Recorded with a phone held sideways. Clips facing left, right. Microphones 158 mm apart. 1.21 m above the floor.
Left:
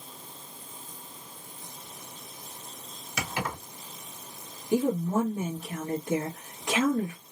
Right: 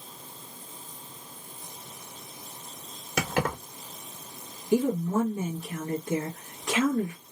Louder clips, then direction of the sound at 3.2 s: Right 5 dB; 60° right (ahead or behind).